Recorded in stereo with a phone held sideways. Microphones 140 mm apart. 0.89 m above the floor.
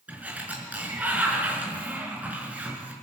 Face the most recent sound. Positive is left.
turn(degrees=-10)  # may be behind; listen again after turning